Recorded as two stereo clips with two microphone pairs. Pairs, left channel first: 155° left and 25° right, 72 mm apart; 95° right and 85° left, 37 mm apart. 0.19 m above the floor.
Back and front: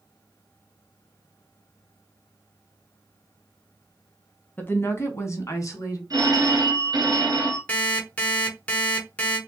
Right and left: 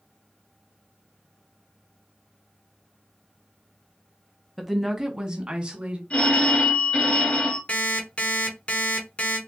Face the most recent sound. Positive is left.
turn(degrees=-140)